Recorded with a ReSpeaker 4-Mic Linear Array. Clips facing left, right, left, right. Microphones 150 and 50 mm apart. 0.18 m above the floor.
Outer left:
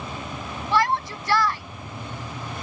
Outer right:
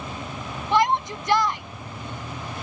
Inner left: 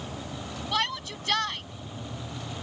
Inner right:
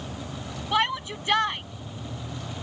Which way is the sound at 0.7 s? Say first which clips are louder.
Outer right 2 dB, inner right 5 dB; 20° right (ahead or behind).